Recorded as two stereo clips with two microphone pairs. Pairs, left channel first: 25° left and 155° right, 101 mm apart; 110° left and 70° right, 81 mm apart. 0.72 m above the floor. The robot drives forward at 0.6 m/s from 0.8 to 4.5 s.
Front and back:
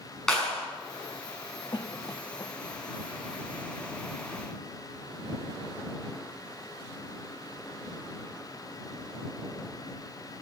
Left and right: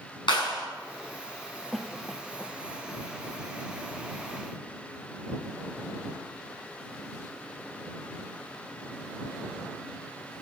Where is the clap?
110° left, 6 m.